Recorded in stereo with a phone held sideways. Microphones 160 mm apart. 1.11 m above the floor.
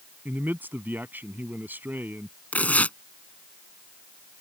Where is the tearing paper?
10° left (ahead or behind).